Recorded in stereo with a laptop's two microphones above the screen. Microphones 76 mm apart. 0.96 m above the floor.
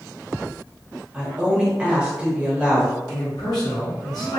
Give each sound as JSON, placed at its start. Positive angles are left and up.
{"t": 1.1, "sound": "a woman speaking", "side_deg": -10, "distance_m": 0.8}
{"t": 3.1, "sound": "a man speaking", "side_deg": 65, "distance_m": 1.1}